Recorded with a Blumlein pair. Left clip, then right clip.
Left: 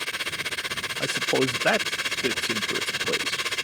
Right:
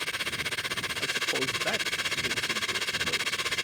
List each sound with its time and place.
0.0 s a machine running: 10° left
1.0 s a man speaking: 60° left